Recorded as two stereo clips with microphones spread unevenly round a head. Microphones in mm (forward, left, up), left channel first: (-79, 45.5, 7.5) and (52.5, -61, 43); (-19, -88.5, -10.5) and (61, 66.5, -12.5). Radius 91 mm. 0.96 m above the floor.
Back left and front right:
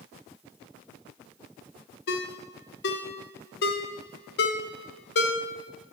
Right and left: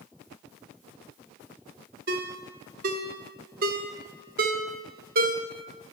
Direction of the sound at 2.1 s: 105° left.